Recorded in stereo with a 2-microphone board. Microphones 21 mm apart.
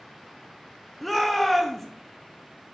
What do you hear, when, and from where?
1.0 s a shout: 5° left (ahead or behind), 0.7 m